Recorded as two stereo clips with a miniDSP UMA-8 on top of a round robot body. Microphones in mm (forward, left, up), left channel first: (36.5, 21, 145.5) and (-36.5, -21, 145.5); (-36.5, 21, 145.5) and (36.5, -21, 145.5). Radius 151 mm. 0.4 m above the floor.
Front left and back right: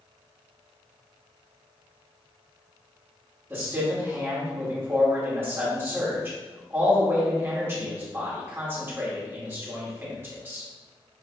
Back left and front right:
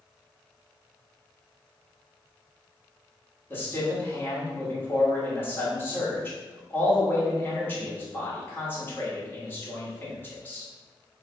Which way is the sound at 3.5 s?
Straight behind.